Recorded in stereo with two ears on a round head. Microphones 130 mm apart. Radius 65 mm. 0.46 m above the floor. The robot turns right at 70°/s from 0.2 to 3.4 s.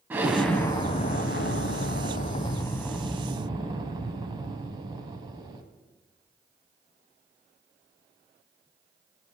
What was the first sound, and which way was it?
An explosion, 10° right.